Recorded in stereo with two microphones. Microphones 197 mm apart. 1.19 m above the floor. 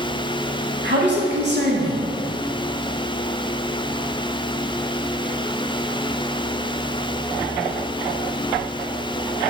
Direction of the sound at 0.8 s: 65° right (ahead or behind).